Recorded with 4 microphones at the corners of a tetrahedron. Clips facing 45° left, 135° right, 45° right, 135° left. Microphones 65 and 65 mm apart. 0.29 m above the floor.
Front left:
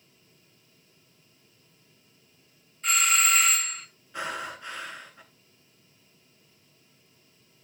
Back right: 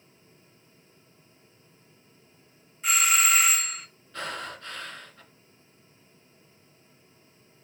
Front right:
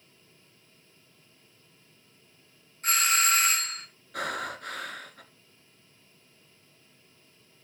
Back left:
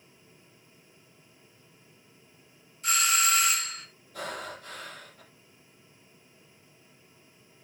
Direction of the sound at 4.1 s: 30° right.